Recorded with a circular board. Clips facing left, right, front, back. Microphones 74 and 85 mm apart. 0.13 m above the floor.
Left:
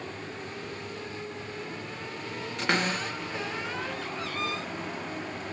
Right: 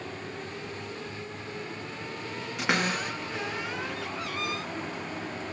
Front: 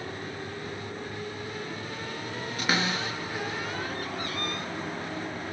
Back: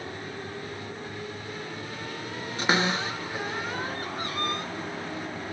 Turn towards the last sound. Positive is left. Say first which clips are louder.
# even, back 3 dB
turn(degrees=-165)